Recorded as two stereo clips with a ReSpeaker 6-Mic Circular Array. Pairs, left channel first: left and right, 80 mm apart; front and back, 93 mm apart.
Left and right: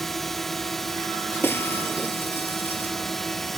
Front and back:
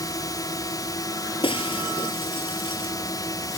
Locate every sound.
0.0 s a drone: 5° left
1.4 s breaking glass: 25° left